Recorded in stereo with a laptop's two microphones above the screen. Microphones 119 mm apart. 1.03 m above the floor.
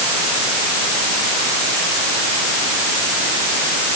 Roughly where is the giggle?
I don't hear a giggle.